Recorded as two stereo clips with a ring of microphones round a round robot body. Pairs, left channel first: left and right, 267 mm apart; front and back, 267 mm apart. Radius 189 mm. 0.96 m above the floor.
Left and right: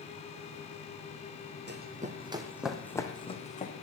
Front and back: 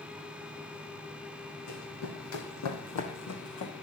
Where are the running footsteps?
45° right, 2.5 m; by 3.7 s 30° left, 3 m.